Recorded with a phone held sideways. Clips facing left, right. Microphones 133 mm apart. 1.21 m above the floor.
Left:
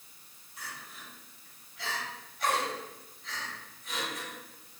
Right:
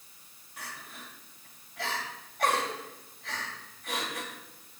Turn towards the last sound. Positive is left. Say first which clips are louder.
# right 2 dB
turn(degrees=-70)  # may be behind; listen again after turning